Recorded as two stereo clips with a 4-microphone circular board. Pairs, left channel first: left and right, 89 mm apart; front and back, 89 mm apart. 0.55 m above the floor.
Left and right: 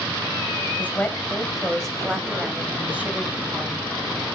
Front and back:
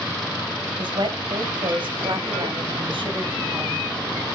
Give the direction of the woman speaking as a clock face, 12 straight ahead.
7 o'clock.